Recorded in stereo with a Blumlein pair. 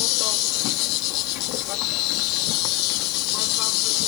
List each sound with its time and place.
0.0 s an insect: 40° left